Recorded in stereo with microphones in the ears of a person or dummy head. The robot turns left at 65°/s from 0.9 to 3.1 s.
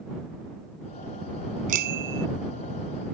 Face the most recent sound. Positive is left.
turn(degrees=-140)